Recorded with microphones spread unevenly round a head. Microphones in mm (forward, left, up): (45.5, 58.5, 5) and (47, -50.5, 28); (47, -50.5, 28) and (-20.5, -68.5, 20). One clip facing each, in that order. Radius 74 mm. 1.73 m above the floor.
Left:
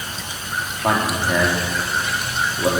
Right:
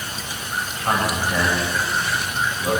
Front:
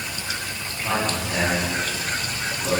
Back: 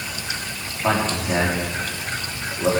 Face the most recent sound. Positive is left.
turn(degrees=135)